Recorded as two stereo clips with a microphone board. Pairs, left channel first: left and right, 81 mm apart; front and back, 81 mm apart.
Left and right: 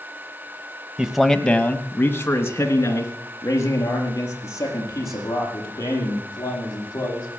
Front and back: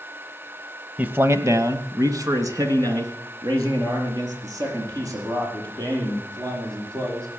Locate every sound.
1.0 s a man speaking: 150° right, 1.0 m; by 7.3 s 140° left, 9 m